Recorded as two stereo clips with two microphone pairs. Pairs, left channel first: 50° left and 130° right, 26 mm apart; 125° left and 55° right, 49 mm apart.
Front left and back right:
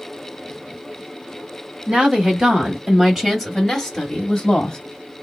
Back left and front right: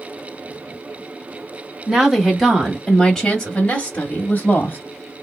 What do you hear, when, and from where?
1.9 s a woman speaking: 135° right, 1.6 m; by 4.8 s 115° left, 1.5 m